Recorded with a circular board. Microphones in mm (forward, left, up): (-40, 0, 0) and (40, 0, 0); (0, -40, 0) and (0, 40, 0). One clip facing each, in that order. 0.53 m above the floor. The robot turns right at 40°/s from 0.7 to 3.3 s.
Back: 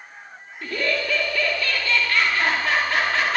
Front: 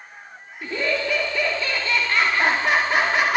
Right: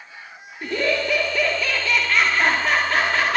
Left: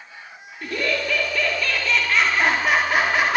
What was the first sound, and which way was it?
Laughter, 60° right.